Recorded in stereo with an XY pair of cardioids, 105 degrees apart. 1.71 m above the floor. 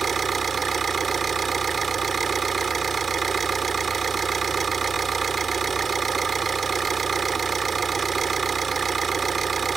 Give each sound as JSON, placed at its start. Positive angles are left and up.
{"t": 0.0, "sound": "an engine running", "azimuth_deg": -40}